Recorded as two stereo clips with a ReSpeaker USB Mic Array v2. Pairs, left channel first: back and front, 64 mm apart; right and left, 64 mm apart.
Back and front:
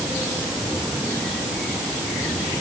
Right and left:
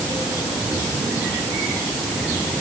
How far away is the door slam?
I don't hear a door slam.